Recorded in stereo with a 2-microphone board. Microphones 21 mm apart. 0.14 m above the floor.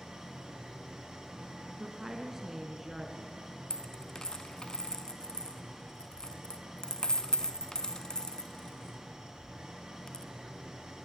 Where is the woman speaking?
20° right (ahead or behind), 2.0 m.